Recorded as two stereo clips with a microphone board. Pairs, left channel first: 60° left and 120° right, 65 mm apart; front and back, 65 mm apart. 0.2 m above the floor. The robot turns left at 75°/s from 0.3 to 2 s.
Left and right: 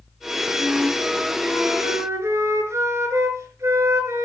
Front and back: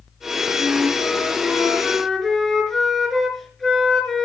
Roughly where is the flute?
Ahead.